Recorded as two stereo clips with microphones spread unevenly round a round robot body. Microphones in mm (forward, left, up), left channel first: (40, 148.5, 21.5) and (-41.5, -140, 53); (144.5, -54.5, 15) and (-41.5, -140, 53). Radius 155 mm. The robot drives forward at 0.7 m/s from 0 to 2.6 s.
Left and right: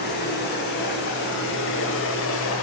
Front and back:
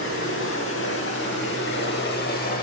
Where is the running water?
20° left, 3 m; by 2.6 s 50° left, 1.4 m.